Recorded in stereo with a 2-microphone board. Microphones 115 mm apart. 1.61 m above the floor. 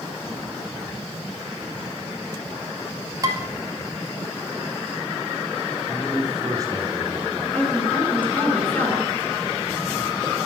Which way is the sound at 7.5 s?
10° left (ahead or behind).